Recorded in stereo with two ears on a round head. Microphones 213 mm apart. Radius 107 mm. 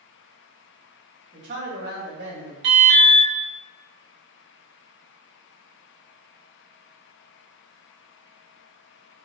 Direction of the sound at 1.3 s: 45° right (ahead or behind).